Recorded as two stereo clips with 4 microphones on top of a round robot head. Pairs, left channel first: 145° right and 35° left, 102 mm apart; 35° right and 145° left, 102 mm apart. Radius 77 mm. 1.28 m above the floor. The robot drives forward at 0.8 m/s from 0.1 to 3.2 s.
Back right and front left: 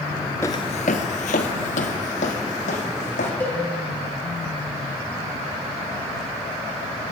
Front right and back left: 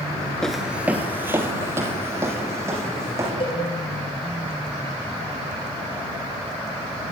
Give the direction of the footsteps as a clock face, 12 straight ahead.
4 o'clock.